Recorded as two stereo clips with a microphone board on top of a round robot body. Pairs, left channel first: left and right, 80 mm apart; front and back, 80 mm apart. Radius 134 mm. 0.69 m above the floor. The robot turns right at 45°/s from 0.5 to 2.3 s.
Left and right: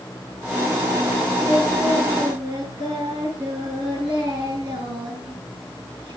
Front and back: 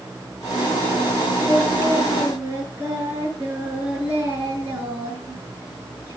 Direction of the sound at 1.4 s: 145° right.